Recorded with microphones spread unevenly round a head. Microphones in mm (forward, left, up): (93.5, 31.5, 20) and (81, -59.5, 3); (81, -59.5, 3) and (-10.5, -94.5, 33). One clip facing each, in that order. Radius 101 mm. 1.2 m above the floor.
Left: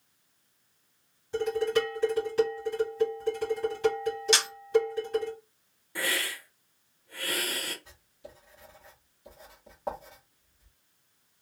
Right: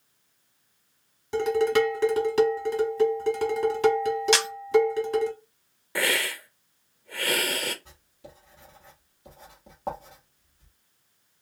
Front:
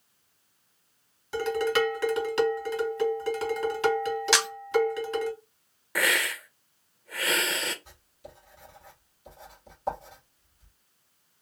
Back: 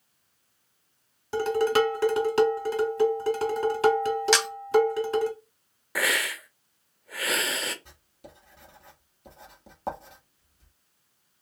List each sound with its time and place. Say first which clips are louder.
1.3 s dishes clattering: right 5 dB, back 3 dB; 115° right, 1.5 m
4.3 s a camera shutter: right 5 dB, back 1 dB; 90° right, 1.2 m
6.0 s a hiss: right 5 dB, front 1 dB; 80° right, 0.7 m
7.8 s writing: even, front 1 dB; 175° right, 1.5 m